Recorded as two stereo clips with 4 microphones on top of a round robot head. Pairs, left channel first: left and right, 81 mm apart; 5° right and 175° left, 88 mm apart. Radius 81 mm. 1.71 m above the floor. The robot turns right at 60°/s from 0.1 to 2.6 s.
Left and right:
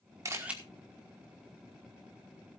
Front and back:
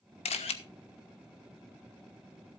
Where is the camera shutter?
25° right, 1.3 m; by 0.6 s 10° right, 1.3 m.